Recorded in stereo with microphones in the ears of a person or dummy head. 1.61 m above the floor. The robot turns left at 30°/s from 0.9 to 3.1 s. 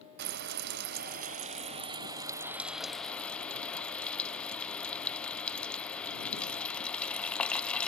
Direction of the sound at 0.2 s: 55° right (ahead or behind).